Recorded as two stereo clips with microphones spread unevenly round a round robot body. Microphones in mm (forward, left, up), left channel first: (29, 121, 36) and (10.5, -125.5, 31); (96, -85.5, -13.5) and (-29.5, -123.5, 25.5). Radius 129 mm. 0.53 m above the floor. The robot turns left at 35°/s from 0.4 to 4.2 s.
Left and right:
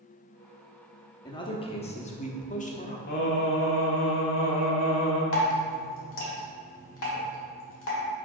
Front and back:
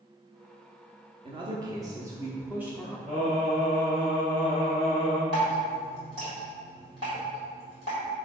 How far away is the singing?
About 1.1 m.